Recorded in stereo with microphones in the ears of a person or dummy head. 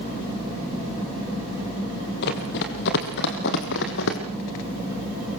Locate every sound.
2.2 s running footsteps: 55° left (ahead or behind), 2.5 m; by 4.2 s 65° left (ahead or behind), 3.5 m